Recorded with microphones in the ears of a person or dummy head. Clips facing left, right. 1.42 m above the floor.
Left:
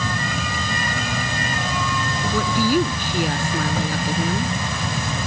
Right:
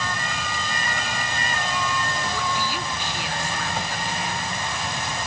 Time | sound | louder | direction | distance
0.0 | an insect | left 4 dB | 85° left | ?
2.3 | a woman speaking | left 9 dB | 50° left (ahead or behind) | ?